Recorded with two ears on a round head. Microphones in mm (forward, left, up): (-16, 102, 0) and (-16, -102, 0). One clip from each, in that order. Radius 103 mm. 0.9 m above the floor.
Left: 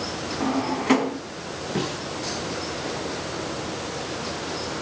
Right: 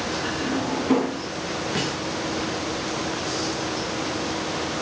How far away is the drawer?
About 4.5 m.